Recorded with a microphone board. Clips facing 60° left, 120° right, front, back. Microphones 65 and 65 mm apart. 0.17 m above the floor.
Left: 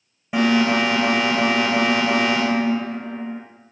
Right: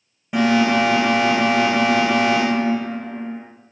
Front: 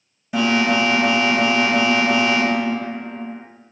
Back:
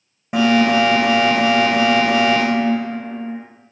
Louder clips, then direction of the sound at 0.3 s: Right 1 dB, back 4 dB; 145° left.